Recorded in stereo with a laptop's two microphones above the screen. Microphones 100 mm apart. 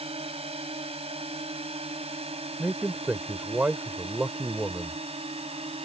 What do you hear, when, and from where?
0.0 s a drone: 80° right
2.6 s a man speaking: 20° right (ahead or behind)